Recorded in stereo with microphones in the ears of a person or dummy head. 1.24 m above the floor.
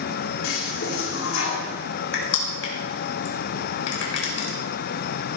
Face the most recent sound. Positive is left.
turn(degrees=80)